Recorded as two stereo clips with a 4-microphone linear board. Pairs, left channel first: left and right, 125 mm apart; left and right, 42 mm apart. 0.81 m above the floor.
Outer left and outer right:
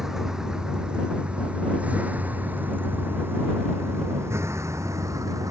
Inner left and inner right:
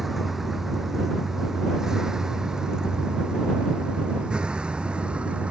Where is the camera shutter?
I don't hear a camera shutter.